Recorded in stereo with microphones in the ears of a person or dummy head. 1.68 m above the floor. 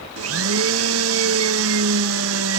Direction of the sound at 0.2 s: 80° right.